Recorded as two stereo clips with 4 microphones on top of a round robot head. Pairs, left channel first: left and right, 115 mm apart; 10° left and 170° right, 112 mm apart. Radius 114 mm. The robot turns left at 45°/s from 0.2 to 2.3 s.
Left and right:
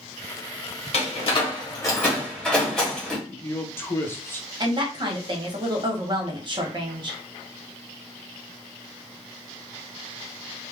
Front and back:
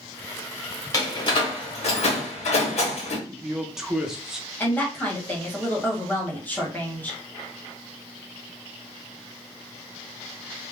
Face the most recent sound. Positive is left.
turn(degrees=-60)